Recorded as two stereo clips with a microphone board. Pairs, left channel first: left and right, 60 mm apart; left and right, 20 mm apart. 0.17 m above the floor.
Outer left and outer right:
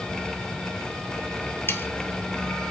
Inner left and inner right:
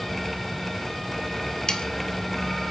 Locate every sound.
1.7 s sawing: 40° left (ahead or behind), 0.8 m